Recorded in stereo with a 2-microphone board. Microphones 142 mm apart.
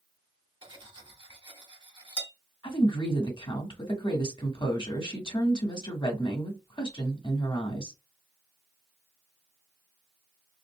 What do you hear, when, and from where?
0.6 s cutlery clinking: 35° right (ahead or behind), 1.2 m
2.6 s a woman speaking: 40° left (ahead or behind), 1.4 m